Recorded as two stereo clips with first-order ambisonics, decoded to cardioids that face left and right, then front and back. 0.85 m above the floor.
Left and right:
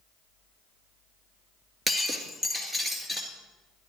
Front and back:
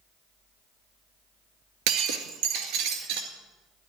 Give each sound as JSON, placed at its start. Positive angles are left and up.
{"t": 1.9, "sound": "breaking glass", "azimuth_deg": -170, "distance_m": 2.0}